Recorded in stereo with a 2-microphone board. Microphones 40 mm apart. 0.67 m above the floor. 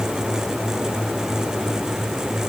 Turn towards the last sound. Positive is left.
No sound to turn to.